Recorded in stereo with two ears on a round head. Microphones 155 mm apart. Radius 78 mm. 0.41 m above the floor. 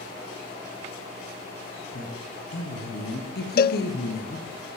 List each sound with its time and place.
1.9 s a woman speaking: 50° left (ahead or behind), 7.5 m; by 4.6 s 65° left (ahead or behind), 7.5 m
3.6 s a cowbell: 55° left (ahead or behind), 0.6 m